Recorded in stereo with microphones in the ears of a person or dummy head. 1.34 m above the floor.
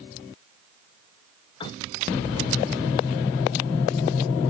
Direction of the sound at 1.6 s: 30° left (ahead or behind).